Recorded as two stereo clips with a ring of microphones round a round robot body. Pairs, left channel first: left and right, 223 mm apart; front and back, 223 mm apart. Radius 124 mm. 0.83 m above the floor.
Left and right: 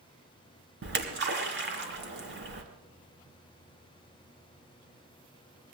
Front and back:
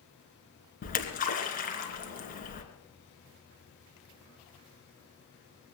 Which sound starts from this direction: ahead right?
A splash, at 0.8 s.